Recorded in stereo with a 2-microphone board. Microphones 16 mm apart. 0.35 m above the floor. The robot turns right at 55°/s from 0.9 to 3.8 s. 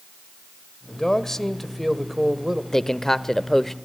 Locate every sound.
0.9 s a man speaking: 130° left, 1.5 m; by 2.6 s 140° right, 1.5 m
2.7 s a man speaking: 25° left (ahead or behind), 0.8 m; by 3.7 s 10° left (ahead or behind), 0.8 m